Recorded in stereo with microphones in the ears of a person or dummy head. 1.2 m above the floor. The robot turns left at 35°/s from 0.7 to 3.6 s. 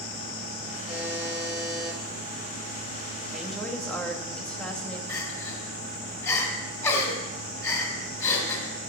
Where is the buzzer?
Straight behind, 7.5 m; by 2.0 s 140° left, 7.5 m.